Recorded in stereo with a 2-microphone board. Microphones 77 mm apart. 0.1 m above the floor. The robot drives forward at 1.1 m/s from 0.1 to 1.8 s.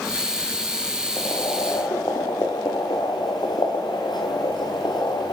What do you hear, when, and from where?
1.2 s boiling: 70° left (ahead or behind), 6.5 m; by 5.3 s 75° left (ahead or behind), 6.5 m